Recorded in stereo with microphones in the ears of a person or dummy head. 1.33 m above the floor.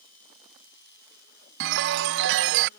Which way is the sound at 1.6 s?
65° right (ahead or behind).